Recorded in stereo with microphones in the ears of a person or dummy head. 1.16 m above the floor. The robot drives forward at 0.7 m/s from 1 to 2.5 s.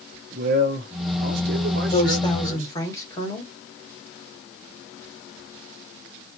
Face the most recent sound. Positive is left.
turn(degrees=20)  # may be behind; listen again after turning